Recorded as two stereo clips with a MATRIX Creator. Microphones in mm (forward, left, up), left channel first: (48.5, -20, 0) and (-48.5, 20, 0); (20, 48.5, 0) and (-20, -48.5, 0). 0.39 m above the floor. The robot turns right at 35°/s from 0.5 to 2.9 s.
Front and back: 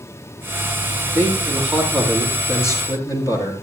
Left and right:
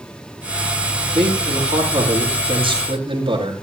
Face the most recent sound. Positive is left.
turn(degrees=-80)